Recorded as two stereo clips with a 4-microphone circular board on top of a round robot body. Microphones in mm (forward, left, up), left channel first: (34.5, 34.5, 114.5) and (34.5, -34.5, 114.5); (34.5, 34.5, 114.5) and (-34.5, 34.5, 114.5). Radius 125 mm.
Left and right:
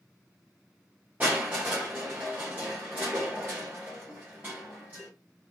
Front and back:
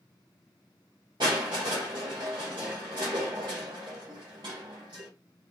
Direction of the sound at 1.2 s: 160° right.